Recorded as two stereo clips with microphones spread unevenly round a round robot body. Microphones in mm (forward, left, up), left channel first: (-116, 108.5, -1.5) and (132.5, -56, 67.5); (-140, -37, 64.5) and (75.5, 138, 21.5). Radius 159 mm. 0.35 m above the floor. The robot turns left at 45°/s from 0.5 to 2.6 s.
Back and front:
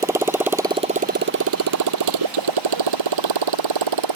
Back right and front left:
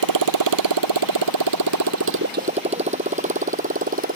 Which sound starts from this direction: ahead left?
A motorcycle, at 0.0 s.